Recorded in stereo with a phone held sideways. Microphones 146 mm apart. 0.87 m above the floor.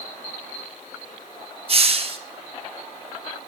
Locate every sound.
1.7 s a hiss: 40° right (ahead or behind), 0.8 m